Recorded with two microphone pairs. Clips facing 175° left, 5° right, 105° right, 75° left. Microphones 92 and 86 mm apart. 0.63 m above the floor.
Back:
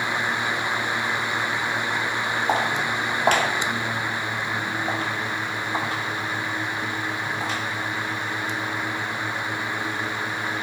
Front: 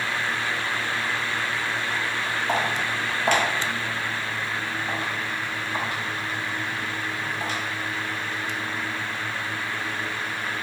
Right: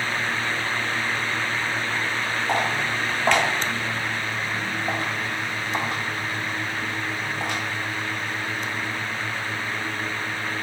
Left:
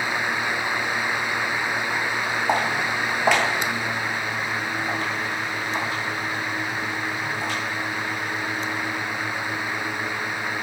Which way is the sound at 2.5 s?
125° left.